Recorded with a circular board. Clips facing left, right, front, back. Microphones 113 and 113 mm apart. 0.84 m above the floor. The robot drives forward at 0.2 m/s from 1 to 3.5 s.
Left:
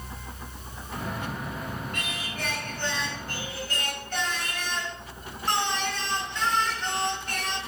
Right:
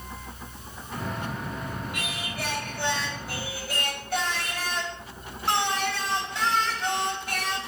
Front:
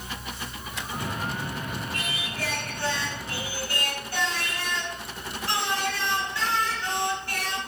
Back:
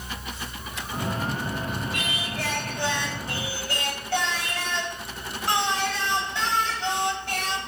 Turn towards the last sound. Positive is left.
turn(degrees=-175)